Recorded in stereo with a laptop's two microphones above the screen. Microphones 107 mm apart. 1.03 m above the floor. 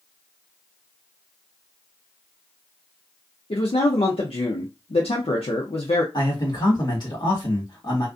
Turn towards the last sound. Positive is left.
turn(degrees=40)  # may be behind; listen again after turning